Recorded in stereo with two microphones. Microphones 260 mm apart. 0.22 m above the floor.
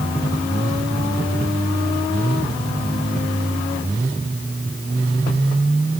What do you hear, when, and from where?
Only background noise.